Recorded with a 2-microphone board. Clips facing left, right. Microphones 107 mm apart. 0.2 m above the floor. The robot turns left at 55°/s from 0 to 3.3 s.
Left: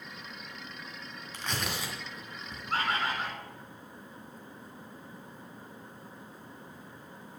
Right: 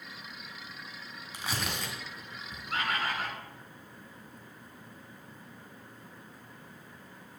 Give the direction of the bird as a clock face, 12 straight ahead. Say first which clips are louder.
Left 2 dB; 10 o'clock.